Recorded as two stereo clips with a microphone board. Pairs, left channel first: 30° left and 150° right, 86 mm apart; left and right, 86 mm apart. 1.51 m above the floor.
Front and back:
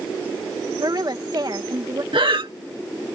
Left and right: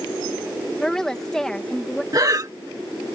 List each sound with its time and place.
0.8 s a woman speaking: 170° left
2.1 s breathing: 135° right